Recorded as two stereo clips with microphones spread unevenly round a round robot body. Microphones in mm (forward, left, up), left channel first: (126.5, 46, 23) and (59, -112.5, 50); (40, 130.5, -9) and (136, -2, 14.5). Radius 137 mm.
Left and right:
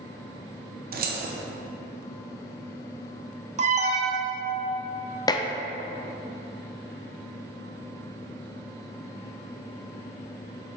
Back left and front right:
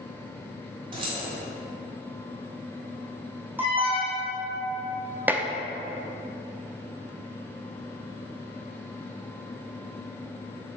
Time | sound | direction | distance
0.9 | keys jangling | 120° right | 0.8 m
3.6 | an alarm | 140° right | 0.7 m
5.3 | dishes clattering | 30° left | 0.6 m